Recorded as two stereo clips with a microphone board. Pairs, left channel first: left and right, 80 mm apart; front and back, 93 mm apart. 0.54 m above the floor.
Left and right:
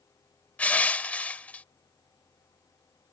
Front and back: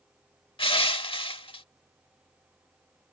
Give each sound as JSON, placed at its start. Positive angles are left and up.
{"t": 0.6, "sound": "crushing", "azimuth_deg": 20}